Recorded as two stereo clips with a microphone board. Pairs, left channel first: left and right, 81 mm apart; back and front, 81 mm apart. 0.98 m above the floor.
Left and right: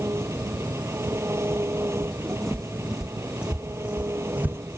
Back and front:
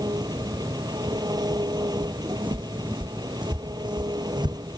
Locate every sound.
0.0 s an engine running: 35° right
2.0 s footsteps: 5° left; by 4.6 s 20° right